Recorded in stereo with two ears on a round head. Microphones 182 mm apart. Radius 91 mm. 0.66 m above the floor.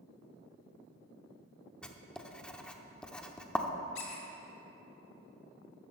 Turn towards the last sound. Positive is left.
turn(degrees=70)  # may be behind; listen again after turning